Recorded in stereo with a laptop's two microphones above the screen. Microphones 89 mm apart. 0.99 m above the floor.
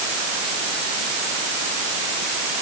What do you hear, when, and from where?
Only background noise.